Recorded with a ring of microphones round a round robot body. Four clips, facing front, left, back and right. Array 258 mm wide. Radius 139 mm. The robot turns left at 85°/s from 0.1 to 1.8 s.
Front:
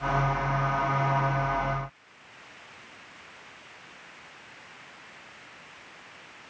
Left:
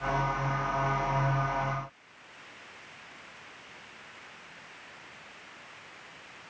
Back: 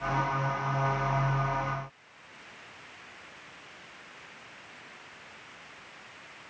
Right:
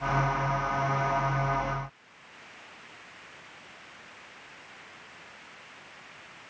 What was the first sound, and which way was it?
Only background noise.